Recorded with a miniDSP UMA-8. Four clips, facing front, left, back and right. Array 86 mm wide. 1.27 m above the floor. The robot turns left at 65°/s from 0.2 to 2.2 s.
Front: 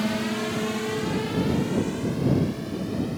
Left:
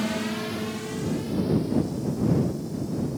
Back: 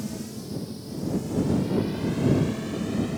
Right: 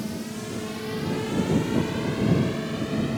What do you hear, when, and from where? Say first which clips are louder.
0.0 s a drone: left 4 dB, front 8 dB; 35° left; by 3.2 s 95° right